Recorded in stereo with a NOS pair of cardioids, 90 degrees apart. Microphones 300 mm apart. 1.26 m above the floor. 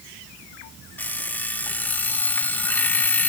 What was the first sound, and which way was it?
An alarm clock, 5° left.